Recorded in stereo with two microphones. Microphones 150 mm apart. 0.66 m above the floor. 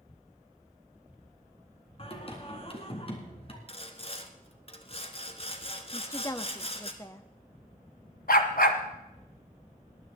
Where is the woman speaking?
20° left (ahead or behind), 0.8 m.